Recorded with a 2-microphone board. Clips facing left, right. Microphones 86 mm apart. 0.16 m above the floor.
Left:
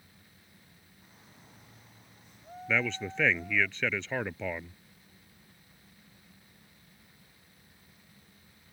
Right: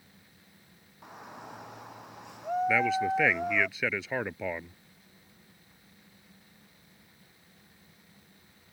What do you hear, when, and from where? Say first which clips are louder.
1.0 s a shout: right 15 dB; 70° right (ahead or behind); by 3.7 s 75° right (ahead or behind)
2.7 s a man speaking: right 3 dB; 5° right (ahead or behind)